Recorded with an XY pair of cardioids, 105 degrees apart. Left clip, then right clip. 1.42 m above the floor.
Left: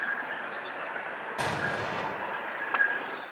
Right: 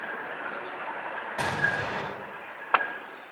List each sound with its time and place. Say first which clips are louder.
1.4 s an explosion: right 3 dB; 10° right, 5.5 m